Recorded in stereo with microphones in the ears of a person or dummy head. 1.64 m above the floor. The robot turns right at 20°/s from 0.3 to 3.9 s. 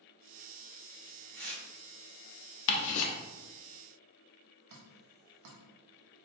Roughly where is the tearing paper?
Right.